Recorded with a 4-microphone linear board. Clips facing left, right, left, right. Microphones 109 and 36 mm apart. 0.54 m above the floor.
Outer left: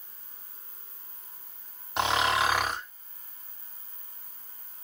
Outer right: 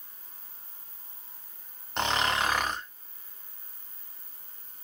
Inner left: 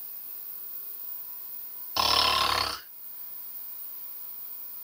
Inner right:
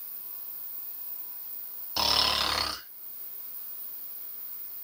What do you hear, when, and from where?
2.0 s snoring: 5° left (ahead or behind), 1.5 m